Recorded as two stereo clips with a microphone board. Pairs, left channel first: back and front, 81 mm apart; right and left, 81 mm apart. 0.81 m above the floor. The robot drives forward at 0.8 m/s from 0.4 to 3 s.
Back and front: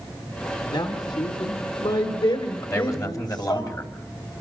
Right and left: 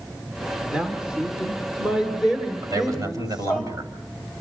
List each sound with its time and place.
0.7 s a man speaking: 165° left, 2.5 m; by 3.6 s 170° left, 4 m
2.6 s a man speaking: 130° left, 4 m; by 3.9 s 135° left, 4 m